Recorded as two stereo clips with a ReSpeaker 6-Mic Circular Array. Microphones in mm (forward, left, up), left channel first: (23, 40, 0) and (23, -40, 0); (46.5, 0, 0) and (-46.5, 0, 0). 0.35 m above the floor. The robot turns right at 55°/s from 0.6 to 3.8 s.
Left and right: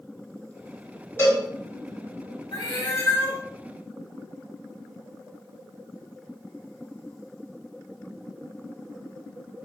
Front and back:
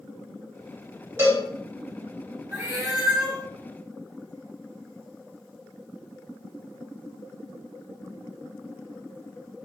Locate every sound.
1.2 s a cowbell: 135° left, 1.6 m; by 1.4 s 145° left, 1.6 m
2.5 s a cat meowing: 120° left, 1.1 m; by 3.4 s 170° left, 1.1 m